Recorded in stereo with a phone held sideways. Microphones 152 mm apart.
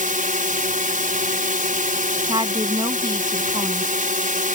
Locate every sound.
0.0 s a drone: 60° right (ahead or behind)
2.2 s a woman speaking: 30° right (ahead or behind)